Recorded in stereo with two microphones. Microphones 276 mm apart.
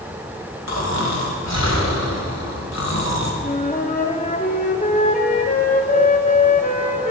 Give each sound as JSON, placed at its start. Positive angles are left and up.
{"t": 0.7, "sound": "snoring", "side_deg": 70, "distance_m": 1.9}
{"t": 3.4, "sound": "a flute", "side_deg": 30, "distance_m": 1.1}